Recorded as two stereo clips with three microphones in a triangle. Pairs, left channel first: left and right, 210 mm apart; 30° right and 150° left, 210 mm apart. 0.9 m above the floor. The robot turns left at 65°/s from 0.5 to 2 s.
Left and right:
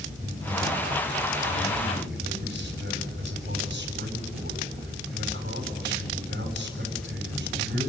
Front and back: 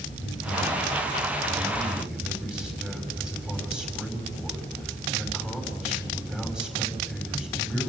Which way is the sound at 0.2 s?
25° right.